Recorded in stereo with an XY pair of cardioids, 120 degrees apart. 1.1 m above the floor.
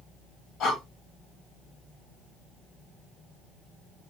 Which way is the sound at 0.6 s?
70° left.